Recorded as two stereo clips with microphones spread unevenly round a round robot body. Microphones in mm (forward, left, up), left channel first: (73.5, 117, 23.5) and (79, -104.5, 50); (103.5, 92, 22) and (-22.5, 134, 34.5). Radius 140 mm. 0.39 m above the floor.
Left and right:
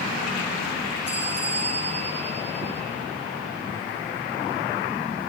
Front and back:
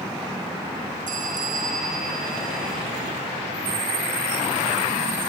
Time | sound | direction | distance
1.1 | a bell | 160° left | 8 m